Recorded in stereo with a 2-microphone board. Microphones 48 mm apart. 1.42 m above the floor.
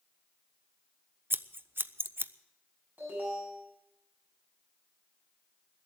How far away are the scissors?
About 0.6 m.